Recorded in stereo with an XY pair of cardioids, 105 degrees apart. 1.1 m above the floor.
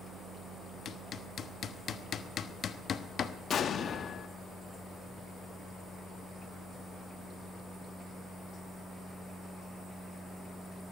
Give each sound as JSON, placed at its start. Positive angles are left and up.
{"t": 0.8, "sound": "hammering", "azimuth_deg": 50, "distance_m": 1.0}
{"t": 3.5, "sound": "an explosion", "azimuth_deg": 55, "distance_m": 1.1}